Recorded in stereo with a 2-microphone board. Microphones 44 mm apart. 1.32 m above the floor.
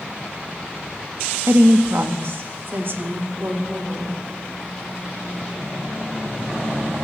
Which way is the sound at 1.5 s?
60° right (ahead or behind).